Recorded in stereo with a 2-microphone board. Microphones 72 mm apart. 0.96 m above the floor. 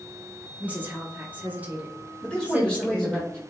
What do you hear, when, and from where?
0.6 s a woman speaking: 25° right (ahead or behind), 0.8 m
2.2 s a man speaking: 10° left (ahead or behind), 1.4 m